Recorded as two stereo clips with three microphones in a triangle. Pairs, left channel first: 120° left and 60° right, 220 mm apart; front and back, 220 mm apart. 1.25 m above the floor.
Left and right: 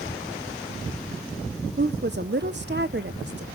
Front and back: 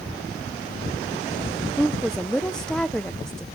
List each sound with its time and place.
1.8 s a woman speaking: 85° right, 0.8 m